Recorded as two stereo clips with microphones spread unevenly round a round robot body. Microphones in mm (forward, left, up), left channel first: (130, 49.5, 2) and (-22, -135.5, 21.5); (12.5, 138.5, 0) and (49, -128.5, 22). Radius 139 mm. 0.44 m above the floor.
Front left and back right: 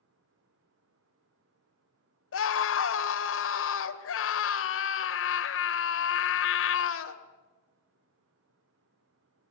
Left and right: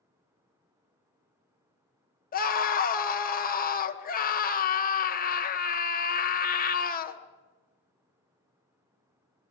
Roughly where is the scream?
Ahead left.